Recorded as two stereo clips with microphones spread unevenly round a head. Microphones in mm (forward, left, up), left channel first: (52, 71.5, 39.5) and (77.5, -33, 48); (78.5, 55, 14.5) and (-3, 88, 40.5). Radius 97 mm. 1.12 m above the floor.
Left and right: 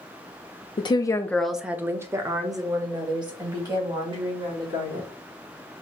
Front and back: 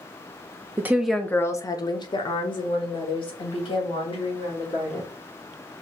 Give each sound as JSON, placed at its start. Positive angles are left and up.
{"t": 0.8, "sound": "a woman speaking", "azimuth_deg": 85, "distance_m": 0.7}